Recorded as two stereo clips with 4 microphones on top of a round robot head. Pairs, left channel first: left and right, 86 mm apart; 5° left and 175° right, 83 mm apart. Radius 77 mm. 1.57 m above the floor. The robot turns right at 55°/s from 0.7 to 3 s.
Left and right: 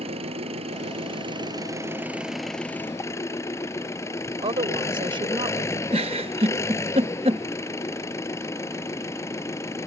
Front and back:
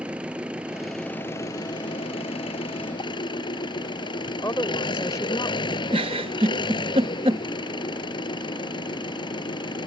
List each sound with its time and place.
0.0 s an engine running: 95° right; by 9.9 s 30° left
4.4 s a woman speaking: 60° right
5.9 s a giggle: 130° right